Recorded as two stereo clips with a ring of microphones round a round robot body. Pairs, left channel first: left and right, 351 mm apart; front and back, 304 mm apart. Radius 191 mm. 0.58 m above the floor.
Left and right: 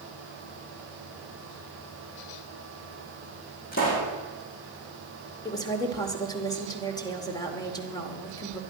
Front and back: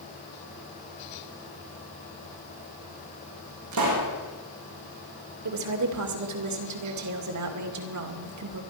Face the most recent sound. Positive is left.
turn(degrees=170)